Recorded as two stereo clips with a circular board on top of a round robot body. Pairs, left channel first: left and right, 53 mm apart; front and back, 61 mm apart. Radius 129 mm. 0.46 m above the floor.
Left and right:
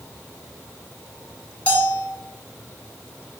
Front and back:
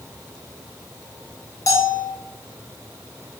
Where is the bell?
25° left, 1.8 m.